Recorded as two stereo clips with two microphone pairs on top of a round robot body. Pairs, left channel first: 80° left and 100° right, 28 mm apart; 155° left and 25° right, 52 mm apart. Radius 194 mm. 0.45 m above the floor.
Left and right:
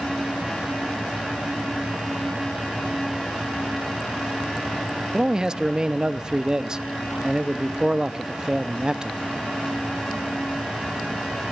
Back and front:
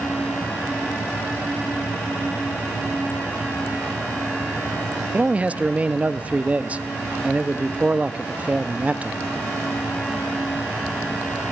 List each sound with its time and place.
5.1 s a man speaking: 65° right, 1.0 m